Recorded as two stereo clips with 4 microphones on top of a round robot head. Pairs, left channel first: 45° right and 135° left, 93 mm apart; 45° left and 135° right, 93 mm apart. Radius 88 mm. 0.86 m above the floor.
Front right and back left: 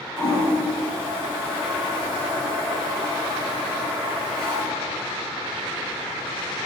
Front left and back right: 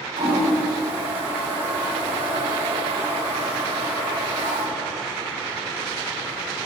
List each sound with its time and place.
0.2 s a toilet flushing: 125° right, 1.9 m